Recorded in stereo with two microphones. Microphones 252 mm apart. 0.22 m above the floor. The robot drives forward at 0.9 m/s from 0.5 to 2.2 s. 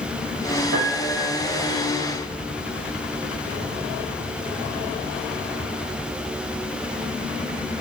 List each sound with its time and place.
0.7 s a piano: 65° right (ahead or behind), 2.5 m; by 1.9 s 85° right, 2.5 m